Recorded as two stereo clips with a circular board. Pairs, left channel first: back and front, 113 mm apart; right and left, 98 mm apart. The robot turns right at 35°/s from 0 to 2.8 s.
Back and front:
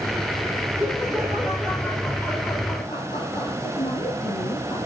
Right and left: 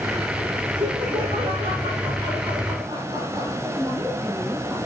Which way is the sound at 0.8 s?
65° left.